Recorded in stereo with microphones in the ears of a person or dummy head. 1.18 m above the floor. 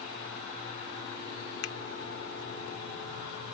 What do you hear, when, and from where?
1.6 s a finger snap: 75° left (ahead or behind)